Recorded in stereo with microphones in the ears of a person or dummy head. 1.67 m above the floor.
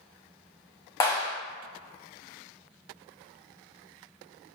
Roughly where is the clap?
Centre.